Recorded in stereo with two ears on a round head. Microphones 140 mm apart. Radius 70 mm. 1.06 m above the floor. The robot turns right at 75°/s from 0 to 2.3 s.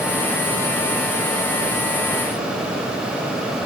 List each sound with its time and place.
Only background noise.